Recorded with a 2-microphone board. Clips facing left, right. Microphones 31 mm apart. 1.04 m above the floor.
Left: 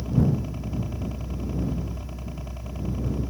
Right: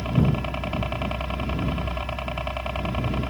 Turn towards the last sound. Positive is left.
turn(degrees=-60)  # may be behind; listen again after turning